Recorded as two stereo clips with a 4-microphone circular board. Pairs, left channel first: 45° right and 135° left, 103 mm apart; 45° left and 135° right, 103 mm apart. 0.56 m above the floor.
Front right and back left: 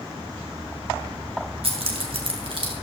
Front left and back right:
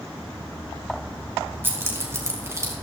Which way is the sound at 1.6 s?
155° left.